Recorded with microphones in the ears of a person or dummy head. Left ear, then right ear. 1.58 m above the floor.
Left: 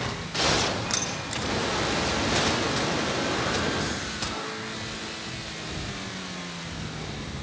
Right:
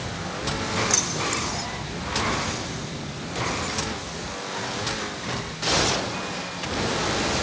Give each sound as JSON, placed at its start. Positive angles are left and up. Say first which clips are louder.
{"t": 0.9, "sound": "keys jangling", "louder": "right 5 dB", "side_deg": 0, "distance_m": 0.6}